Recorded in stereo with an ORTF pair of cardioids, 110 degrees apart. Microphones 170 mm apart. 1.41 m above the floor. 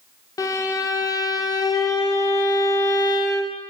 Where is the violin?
20° left, 1.0 m.